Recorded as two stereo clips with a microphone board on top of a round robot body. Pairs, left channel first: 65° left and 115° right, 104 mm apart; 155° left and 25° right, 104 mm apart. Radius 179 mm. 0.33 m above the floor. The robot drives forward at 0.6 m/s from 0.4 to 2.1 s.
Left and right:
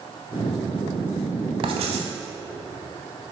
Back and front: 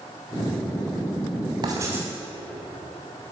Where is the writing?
75° right, 0.5 m; by 2.1 s 105° right, 0.5 m.